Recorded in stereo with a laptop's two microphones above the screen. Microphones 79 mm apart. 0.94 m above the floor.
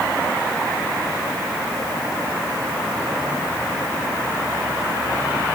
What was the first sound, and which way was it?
Only background noise.